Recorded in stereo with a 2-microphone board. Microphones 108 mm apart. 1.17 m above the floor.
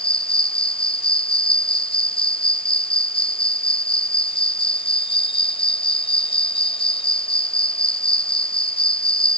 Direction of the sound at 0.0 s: 60° left (ahead or behind).